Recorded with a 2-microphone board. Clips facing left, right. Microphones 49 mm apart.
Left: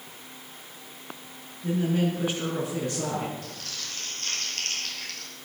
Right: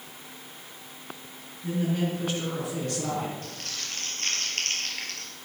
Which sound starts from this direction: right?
Crumpling, at 3.4 s.